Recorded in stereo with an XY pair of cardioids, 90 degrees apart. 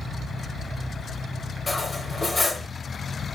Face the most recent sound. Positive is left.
turn(degrees=35)